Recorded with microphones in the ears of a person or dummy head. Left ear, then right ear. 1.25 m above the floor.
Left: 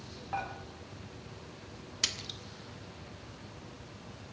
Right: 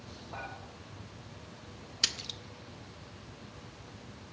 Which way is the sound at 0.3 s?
60° left (ahead or behind).